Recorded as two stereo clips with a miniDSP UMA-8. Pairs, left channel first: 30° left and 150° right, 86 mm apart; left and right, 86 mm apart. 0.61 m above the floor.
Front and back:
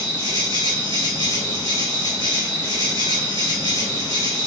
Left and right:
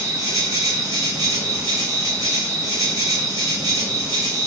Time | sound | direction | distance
0.0 | an insect | 125° right | 1.7 m